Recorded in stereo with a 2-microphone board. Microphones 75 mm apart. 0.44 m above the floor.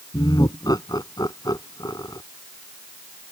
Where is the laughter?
60° left (ahead or behind).